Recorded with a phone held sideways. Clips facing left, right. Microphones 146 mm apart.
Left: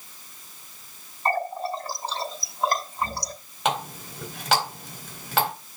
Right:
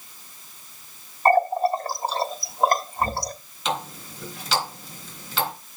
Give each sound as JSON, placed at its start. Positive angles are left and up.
{"t": 1.2, "sound": "a running tap", "side_deg": -50, "distance_m": 1.1}
{"t": 3.6, "sound": "a running tap", "side_deg": 70, "distance_m": 3.5}